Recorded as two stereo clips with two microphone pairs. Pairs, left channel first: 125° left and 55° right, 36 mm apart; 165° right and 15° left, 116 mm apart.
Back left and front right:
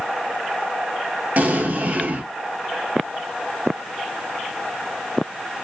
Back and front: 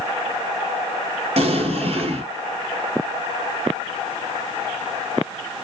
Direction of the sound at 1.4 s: 10° right.